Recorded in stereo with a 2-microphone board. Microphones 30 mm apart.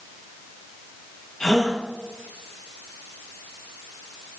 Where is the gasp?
15° left (ahead or behind), 6.5 m.